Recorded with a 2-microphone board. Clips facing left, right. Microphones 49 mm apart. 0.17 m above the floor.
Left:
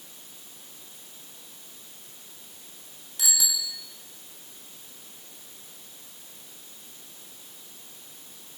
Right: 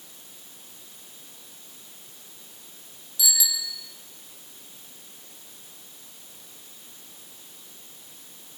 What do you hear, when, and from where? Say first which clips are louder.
3.2 s a bicycle bell: right 2 dB; 45° left (ahead or behind), 5 m